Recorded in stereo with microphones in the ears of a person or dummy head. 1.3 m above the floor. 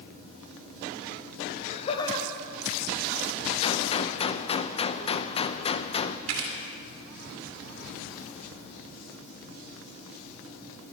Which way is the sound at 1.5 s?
55° left (ahead or behind).